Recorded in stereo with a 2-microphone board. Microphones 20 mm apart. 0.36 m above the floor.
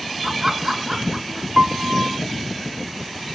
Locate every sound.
0.2 s laughter: 25° right (ahead or behind); by 1.5 s 20° right (ahead or behind)
1.6 s a piano: 45° right (ahead or behind)